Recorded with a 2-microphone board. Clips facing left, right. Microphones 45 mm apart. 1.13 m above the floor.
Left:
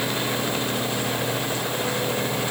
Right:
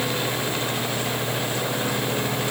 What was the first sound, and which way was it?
Only background noise.